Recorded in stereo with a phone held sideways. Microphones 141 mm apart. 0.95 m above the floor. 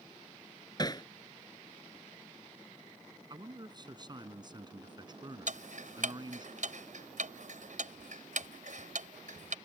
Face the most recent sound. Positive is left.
turn(degrees=-65)  # may be behind; listen again after turning